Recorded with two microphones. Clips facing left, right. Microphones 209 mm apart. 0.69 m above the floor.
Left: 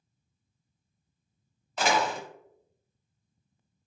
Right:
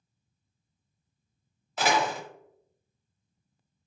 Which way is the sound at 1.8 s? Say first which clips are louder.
Even; 5° right (ahead or behind).